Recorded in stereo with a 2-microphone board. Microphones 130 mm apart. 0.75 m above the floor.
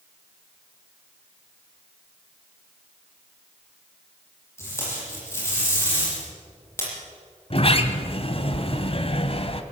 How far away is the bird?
No bird in this recording.